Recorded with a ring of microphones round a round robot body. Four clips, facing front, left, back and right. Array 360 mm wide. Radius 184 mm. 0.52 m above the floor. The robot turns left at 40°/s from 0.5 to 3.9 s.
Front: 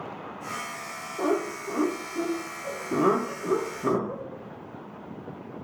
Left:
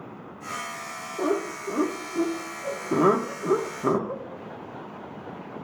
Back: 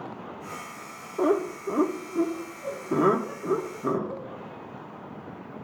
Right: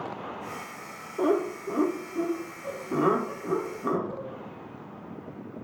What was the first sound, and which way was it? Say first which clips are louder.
Laughter: right 1 dB, back 3 dB; 165° right.